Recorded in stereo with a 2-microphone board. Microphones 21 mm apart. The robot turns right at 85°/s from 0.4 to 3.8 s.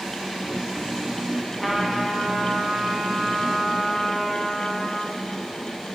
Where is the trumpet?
175° left, 1.4 m; by 5.2 s 5° left, 1.4 m.